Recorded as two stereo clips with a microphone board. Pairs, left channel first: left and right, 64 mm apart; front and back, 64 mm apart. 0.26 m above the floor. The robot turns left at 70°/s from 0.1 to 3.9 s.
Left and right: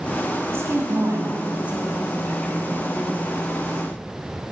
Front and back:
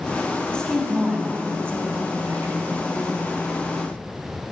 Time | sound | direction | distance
0.5 | a woman speaking | 70° right | 2.0 m